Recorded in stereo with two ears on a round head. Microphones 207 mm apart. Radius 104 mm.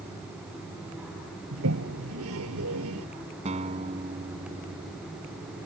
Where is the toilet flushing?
70° right (ahead or behind).